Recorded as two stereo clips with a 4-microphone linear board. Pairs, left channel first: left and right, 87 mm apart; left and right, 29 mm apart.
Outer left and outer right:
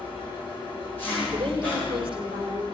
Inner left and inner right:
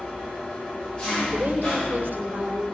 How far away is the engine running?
About 8 m.